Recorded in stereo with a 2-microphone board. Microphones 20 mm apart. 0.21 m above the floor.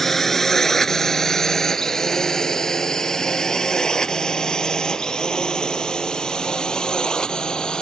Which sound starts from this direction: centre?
A drone, at 0.0 s.